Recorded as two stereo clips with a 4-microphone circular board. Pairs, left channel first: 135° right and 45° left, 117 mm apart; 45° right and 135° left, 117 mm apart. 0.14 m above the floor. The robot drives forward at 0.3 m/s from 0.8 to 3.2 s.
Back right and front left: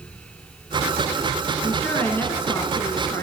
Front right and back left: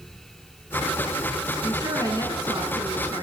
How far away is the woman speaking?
About 1.4 m.